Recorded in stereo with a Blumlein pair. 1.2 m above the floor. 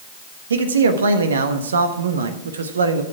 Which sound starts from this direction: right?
A man speaking, at 0.5 s.